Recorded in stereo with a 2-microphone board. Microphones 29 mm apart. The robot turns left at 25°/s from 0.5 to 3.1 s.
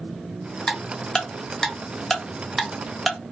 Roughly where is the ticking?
Left.